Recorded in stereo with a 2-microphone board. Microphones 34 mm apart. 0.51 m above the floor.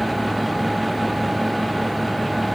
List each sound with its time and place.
Only background noise.